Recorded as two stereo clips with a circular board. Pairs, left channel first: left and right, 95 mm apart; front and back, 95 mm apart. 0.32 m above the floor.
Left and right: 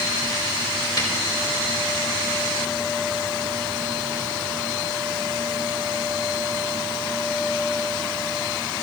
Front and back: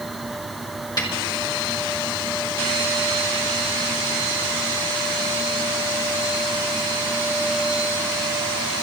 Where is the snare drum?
45° left, 4.5 m.